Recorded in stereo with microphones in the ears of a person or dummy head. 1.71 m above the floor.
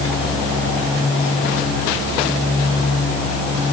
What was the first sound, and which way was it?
Only background noise.